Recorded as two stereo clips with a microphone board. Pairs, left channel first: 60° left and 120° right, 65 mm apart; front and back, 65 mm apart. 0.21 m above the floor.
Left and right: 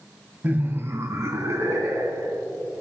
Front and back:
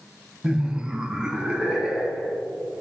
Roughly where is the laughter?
Behind right.